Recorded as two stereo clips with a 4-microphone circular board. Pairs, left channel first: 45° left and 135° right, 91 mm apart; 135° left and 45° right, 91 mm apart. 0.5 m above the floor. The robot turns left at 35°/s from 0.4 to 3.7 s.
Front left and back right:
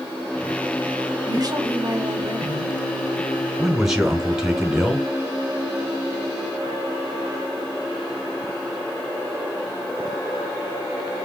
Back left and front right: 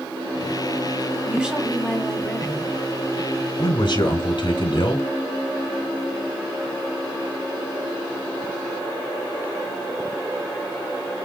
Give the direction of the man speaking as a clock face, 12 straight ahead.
7 o'clock.